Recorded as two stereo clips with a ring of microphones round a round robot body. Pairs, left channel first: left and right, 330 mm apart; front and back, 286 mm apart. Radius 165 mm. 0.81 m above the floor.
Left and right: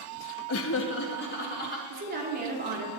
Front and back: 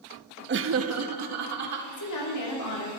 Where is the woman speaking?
25° right, 2.5 m.